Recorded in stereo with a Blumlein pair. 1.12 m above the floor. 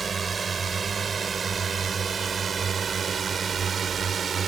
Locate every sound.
0.0 s a drone: 15° right; by 4.5 s 20° right